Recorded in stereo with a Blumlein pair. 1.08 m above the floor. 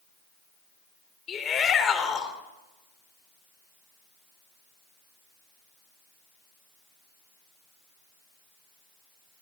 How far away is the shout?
About 4 m.